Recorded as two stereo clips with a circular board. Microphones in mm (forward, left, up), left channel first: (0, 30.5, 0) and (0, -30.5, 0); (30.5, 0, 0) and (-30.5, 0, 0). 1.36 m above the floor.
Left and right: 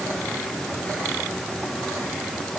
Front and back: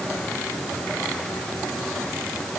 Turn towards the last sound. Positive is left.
No sound to turn to.